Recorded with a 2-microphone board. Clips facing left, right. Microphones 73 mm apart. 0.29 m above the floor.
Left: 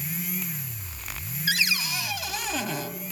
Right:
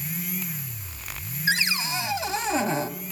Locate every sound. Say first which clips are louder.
1.5 s a cupboard door: right 2 dB; 30° right (ahead or behind), 1.7 m